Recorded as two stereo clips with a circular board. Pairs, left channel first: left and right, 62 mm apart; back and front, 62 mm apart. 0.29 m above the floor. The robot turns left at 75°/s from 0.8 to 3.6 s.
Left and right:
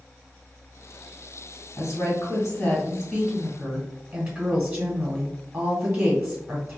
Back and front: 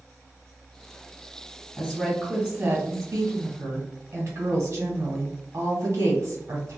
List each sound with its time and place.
1.8 s a woman speaking: 105° left, 1.4 m; by 6.8 s 30° right, 1.4 m